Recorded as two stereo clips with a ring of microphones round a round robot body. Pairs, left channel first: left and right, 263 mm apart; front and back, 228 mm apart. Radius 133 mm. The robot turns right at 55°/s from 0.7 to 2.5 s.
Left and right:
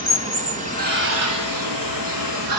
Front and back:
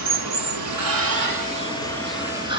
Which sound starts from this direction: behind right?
Running water, at 0.0 s.